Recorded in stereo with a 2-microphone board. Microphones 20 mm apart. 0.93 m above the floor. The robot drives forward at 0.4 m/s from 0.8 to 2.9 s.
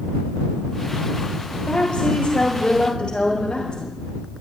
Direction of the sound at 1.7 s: 40° left (ahead or behind).